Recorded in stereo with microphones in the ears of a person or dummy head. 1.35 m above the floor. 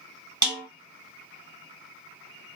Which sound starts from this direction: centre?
A snare drum, at 0.4 s.